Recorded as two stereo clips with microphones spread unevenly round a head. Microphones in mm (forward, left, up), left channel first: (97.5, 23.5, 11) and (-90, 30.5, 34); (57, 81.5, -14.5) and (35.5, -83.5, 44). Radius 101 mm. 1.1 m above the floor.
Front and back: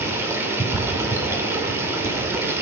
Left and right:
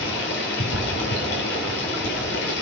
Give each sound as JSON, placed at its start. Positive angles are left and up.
{"t": 0.0, "sound": "running water", "azimuth_deg": 100, "distance_m": 3.5}